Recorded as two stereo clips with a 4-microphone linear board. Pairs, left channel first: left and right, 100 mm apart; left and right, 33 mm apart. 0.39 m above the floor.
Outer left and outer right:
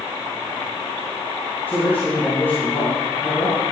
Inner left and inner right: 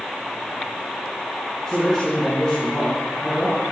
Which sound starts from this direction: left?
A man speaking, at 1.7 s.